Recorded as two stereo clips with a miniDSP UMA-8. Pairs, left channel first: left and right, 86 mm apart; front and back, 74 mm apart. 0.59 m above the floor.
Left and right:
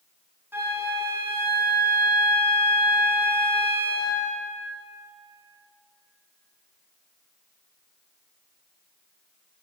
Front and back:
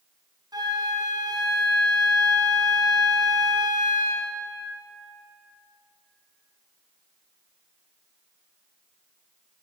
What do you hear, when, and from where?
0.5 s a flute: 155° right, 2.5 m